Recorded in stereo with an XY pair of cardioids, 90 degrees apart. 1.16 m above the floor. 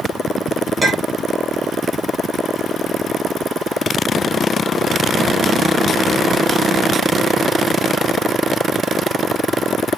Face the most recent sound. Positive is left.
turn(degrees=-20)